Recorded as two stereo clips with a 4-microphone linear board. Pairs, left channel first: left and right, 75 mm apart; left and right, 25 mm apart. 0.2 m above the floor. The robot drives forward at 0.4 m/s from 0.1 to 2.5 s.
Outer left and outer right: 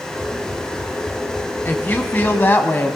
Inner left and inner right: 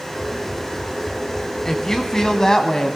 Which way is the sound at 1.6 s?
30° left (ahead or behind).